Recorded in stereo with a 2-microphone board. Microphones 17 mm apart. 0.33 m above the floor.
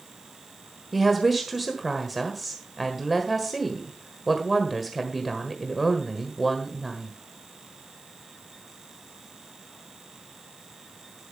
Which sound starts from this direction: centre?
A woman speaking, at 0.9 s.